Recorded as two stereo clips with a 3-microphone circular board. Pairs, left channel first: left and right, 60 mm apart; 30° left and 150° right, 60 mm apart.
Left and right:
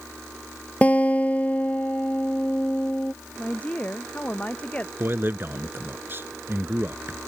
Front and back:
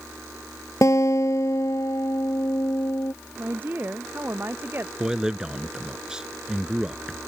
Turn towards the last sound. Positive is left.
turn(degrees=-80)